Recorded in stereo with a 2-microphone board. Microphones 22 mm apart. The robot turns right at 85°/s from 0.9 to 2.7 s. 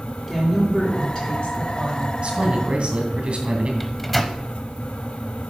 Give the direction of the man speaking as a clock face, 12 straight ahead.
4 o'clock.